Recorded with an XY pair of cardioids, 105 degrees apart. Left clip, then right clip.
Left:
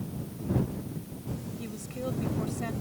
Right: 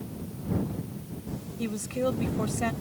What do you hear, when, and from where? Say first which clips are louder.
1.6 s a woman speaking: right 10 dB; 50° right